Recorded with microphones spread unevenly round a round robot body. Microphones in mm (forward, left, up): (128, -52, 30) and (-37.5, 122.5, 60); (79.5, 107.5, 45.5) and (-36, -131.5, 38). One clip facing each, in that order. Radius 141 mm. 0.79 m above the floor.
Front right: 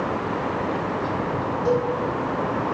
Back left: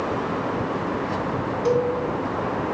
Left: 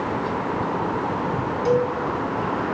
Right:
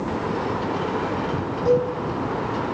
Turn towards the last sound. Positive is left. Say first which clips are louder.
# back left 1 dB, right 1 dB
turn(degrees=90)